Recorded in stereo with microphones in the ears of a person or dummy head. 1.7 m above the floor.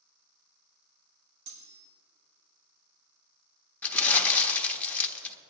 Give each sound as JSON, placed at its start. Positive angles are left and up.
{"t": 1.5, "sound": "cutlery clinking", "side_deg": -80, "distance_m": 4.5}
{"t": 3.8, "sound": "crumpling", "side_deg": 10, "distance_m": 0.9}